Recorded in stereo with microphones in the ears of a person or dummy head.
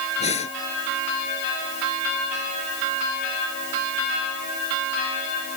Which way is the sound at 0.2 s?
35° left (ahead or behind).